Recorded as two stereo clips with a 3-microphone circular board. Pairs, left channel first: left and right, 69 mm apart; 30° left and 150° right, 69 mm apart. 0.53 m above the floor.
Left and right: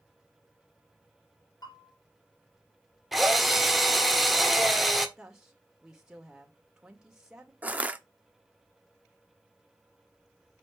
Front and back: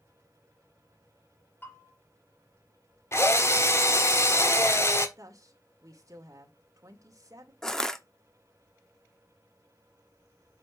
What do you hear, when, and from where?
1.6 s a bell: 90° left, 4.5 m
3.1 s a drill: straight ahead, 1.3 m
5.2 s a woman speaking: 170° right, 1.9 m
7.6 s crushing: 45° right, 0.9 m